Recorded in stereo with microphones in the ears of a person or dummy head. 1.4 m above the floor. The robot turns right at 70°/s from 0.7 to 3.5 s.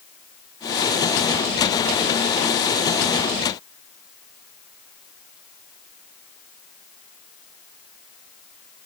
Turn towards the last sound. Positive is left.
No sound to turn to.